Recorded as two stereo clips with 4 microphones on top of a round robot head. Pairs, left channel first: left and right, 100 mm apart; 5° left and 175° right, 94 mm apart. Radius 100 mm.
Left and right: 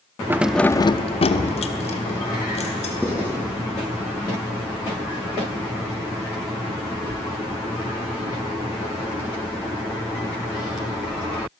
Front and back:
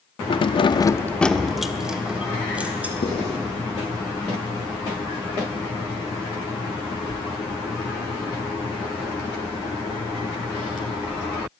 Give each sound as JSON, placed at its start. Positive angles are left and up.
{"t": 0.3, "sound": "keys jangling", "azimuth_deg": -20, "distance_m": 0.9}
{"t": 3.0, "sound": "writing", "azimuth_deg": -15, "distance_m": 7.5}